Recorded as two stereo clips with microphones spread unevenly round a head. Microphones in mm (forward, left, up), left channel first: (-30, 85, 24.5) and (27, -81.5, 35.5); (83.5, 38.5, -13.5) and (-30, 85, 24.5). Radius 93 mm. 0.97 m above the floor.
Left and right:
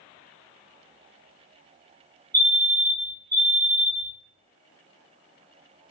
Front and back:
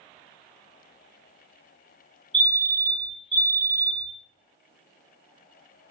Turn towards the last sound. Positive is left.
turn(degrees=-40)